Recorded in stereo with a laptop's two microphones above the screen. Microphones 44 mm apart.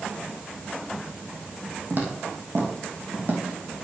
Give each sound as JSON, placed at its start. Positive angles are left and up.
{"t": 1.9, "sound": "footsteps", "side_deg": -50, "distance_m": 3.0}